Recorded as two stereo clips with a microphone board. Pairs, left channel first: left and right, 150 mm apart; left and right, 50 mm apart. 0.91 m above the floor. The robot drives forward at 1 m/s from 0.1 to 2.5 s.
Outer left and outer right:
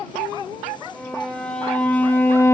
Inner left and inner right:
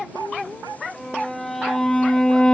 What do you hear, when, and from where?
0.9 s a violin: 5° left (ahead or behind), 2 m; by 2.5 s 20° left (ahead or behind), 0.7 m